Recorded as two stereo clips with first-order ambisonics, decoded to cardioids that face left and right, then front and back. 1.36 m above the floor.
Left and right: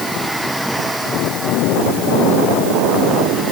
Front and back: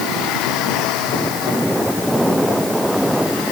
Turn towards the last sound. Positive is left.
No sound to turn to.